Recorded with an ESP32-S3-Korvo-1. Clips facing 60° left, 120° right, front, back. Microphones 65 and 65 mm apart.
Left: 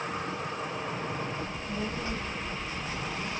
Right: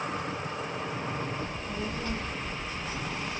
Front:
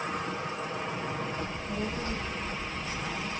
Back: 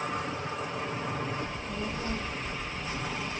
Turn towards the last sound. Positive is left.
turn(degrees=90)